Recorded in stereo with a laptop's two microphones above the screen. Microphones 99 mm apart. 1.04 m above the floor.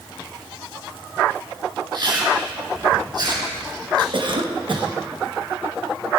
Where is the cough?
55° right (ahead or behind), 1.2 m.